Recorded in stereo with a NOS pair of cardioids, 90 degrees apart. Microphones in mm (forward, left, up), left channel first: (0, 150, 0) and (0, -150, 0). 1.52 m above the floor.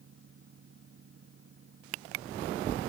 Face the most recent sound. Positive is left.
turn(degrees=-40)